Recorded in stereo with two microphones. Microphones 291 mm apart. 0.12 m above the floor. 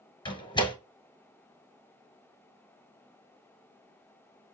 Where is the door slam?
15° left (ahead or behind), 1.1 m.